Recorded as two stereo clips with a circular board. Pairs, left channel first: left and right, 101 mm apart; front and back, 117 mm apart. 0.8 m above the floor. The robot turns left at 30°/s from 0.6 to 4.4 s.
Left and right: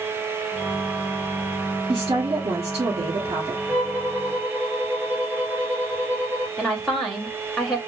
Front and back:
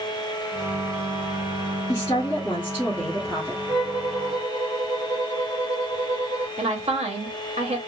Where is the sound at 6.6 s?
175° left, 1.6 m.